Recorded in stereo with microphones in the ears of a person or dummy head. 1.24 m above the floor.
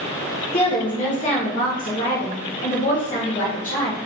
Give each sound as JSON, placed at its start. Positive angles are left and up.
{"t": 0.5, "sound": "a woman speaking", "side_deg": 35, "distance_m": 1.3}